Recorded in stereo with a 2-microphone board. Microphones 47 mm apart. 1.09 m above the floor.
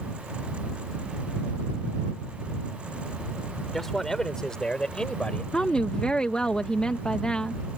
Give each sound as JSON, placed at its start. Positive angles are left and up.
{"t": 3.7, "sound": "a man speaking", "side_deg": 5}
{"t": 5.5, "sound": "a woman speaking", "side_deg": 20}